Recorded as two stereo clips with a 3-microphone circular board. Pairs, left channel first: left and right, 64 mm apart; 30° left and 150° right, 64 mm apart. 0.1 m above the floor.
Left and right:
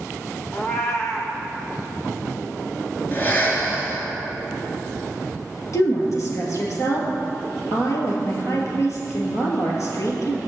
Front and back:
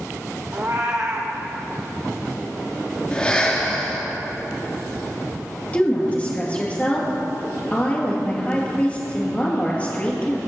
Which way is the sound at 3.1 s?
85° left.